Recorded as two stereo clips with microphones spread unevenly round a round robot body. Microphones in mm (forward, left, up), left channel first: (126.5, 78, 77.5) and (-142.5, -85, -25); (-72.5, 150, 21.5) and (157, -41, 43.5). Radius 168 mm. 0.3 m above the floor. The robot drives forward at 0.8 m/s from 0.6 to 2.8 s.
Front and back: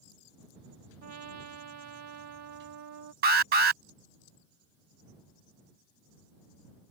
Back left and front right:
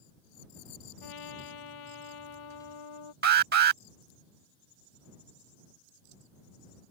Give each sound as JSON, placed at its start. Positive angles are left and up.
{"t": 1.0, "sound": "a trumpet", "azimuth_deg": 170}
{"t": 3.2, "sound": "an alarm", "azimuth_deg": -100}